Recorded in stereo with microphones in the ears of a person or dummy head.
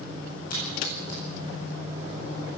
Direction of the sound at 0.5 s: 50° left (ahead or behind).